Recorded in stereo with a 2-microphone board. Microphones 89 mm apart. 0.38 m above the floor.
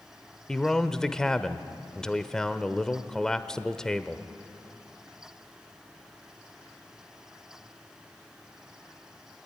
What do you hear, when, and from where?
0.5 s a man speaking: 5° left (ahead or behind), 0.9 m